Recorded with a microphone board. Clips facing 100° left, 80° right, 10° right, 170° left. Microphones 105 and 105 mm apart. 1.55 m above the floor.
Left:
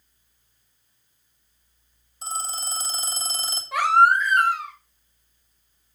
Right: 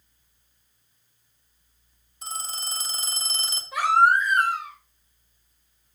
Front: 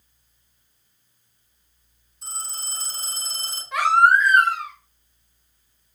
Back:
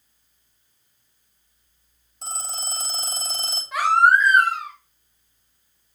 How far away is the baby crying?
About 3.5 m.